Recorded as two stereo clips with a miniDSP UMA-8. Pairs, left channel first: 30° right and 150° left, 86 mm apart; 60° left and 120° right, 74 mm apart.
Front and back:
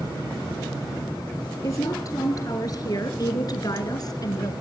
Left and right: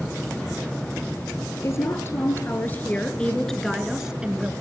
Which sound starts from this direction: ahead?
A woman speaking, at 1.6 s.